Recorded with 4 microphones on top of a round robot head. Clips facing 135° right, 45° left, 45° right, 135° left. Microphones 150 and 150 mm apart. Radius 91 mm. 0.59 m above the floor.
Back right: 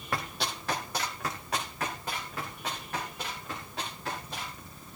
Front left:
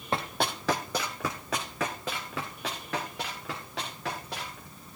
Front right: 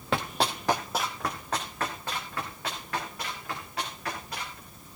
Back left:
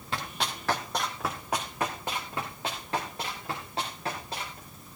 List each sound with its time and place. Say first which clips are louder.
0.1 s running footsteps: front left 4 dB, front right 6 dB; 20° right, 0.9 m; by 4.6 s 70° left, 5 m